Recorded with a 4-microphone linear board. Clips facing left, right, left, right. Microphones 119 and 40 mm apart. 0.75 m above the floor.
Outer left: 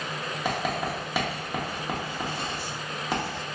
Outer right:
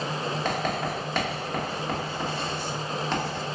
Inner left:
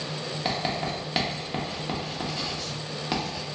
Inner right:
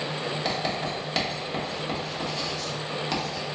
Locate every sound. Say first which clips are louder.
0.5 s writing: outer left 2 dB, inner left 2 dB; 10° left (ahead or behind), 1.0 m